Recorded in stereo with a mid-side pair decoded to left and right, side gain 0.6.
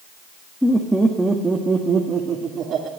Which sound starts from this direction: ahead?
Laughter, at 0.6 s.